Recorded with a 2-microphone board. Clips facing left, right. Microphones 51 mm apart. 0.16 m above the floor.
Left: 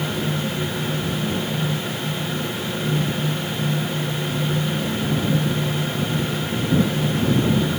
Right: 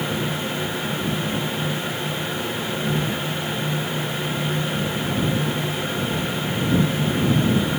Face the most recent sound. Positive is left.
No sound to turn to.